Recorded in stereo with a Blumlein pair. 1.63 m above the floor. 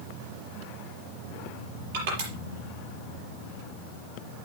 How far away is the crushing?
About 5.5 m.